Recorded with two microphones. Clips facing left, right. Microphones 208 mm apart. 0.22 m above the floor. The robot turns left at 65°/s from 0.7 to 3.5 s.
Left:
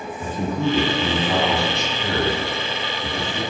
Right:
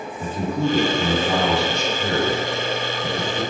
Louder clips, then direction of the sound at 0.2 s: Even; 5° right (ahead or behind).